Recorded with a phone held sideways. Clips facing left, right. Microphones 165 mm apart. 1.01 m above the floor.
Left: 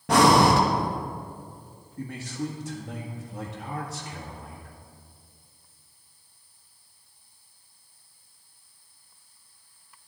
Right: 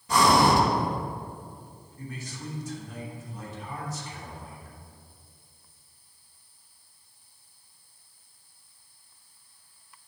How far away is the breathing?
About 1.0 m.